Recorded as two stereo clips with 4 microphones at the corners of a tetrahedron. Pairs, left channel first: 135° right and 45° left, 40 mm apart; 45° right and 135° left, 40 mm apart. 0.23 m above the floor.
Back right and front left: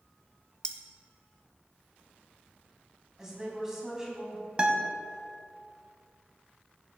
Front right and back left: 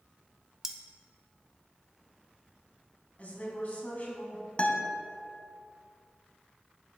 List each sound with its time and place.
0.6 s cutlery clinking: 165° right, 0.7 m
3.2 s a woman speaking: 25° right, 1.8 m
4.6 s a guitar: 5° right, 0.9 m